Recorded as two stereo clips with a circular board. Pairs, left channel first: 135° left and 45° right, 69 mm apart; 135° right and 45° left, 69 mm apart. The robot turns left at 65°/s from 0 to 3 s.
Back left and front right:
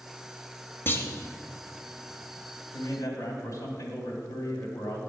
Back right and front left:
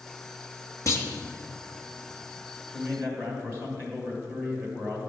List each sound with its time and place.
0.9 s a clunk: 170° right, 0.9 m; by 1.1 s 175° left, 0.9 m
2.7 s a man speaking: 115° left, 1.8 m; by 5.0 s 100° left, 1.8 m